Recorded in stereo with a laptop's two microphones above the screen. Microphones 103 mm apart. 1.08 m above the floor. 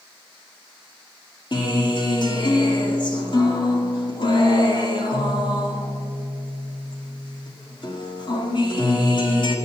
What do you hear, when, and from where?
1.5 s a guitar: 45° left (ahead or behind), 1.8 m